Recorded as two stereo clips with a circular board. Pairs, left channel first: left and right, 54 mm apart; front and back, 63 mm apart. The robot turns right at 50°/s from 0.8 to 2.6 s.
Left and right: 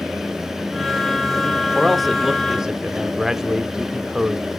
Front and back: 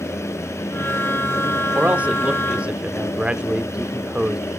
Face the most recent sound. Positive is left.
turn(degrees=-150)